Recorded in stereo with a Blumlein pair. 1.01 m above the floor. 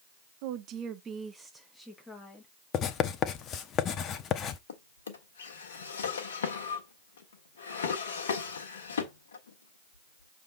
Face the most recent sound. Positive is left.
turn(degrees=65)